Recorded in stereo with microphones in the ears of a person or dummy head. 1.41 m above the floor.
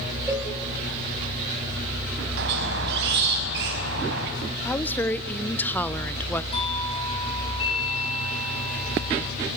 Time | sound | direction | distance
0.3 | a cowbell | 15° right (ahead or behind) | 5.5 m
2.4 | a squeak | 65° right (ahead or behind) | 4.5 m
4.7 | a woman speaking | 10° left (ahead or behind) | 0.8 m
6.5 | a doorbell | 30° left (ahead or behind) | 5.5 m